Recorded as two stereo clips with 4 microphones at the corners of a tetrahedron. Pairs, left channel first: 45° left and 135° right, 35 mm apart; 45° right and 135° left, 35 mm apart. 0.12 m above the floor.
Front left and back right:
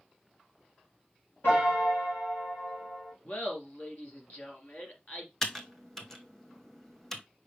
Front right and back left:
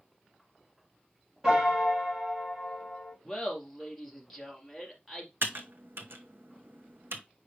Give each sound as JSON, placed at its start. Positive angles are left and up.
{"t": 1.4, "sound": "a piano", "azimuth_deg": 60, "distance_m": 4.5}
{"t": 3.2, "sound": "laughter", "azimuth_deg": 40, "distance_m": 2.5}
{"t": 5.4, "sound": "typing on a keyboard", "azimuth_deg": 125, "distance_m": 1.0}